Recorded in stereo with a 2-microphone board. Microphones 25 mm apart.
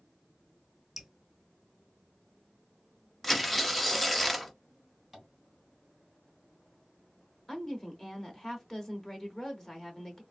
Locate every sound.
1.0 s dripping: 10° right (ahead or behind), 0.7 m
3.2 s tearing paper: 5° left (ahead or behind), 0.5 m
5.1 s tapping: 10° right (ahead or behind), 1.8 m
7.5 s a woman speaking: 20° left (ahead or behind), 0.9 m